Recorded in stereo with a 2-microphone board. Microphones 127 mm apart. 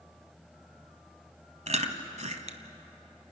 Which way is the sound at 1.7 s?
65° right (ahead or behind).